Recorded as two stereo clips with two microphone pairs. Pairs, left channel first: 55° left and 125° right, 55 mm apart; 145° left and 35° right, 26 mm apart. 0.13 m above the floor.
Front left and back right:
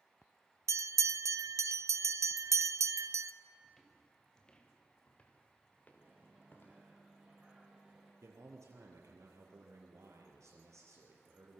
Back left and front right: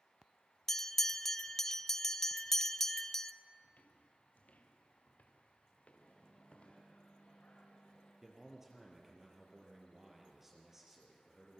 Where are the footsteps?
140° left, 2.5 m; by 6.8 s 105° left, 4 m.